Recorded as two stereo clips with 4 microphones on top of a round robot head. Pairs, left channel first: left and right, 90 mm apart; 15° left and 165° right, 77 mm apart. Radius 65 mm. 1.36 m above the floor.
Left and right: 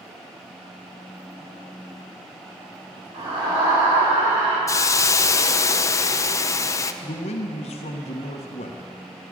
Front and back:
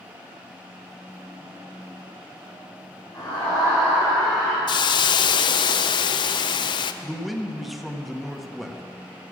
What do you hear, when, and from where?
3.1 s a scream: 65° right, 6 m; by 4.6 s 75° right, 5 m
4.7 s a hiss: 35° left, 0.6 m
7.0 s a man speaking: 105° left, 1.2 m